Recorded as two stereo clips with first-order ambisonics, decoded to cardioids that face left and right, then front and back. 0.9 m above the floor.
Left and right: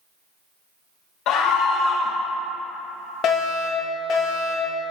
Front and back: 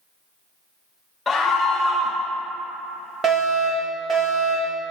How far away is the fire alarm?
About 1.7 m.